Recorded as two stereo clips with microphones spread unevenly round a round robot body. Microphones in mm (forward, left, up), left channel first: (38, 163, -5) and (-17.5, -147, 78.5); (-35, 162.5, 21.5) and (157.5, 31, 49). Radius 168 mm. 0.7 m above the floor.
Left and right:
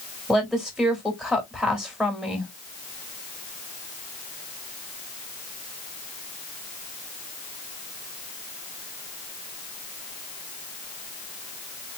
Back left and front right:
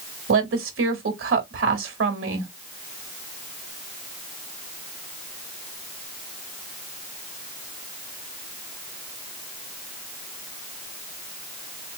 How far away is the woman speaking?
About 2 m.